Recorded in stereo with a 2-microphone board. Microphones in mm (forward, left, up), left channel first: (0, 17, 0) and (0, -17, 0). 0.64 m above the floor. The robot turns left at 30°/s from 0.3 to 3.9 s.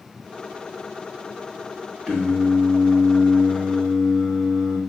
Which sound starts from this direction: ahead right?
Singing, at 2.1 s.